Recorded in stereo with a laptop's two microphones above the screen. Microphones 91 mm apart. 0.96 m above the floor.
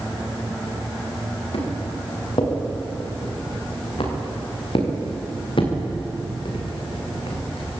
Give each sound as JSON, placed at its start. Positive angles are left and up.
{"t": 1.5, "sound": "footsteps", "side_deg": 70, "distance_m": 9.0}